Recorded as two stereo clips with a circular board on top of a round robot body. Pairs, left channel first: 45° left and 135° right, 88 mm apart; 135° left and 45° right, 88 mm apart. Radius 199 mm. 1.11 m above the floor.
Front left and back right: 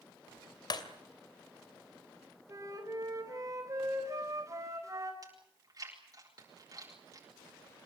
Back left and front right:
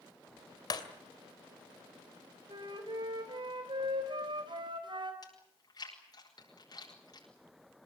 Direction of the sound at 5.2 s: 175° left.